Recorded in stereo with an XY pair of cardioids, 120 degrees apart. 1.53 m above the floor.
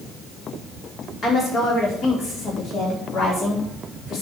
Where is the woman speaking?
50° left, 5 m; by 4.2 s 65° left, 5 m.